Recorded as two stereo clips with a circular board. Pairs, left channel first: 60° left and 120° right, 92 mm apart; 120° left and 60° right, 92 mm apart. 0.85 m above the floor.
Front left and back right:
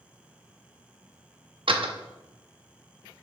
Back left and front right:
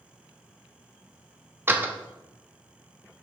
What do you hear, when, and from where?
1.7 s a door slam: 125° right, 1.0 m